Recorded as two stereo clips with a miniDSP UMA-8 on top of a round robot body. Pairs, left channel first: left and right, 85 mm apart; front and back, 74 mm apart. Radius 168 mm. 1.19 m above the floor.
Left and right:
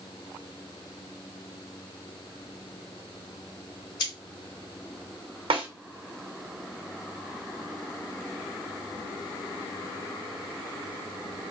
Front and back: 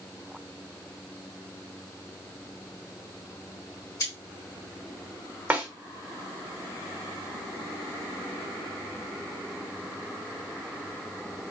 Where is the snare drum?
110° right, 0.9 m.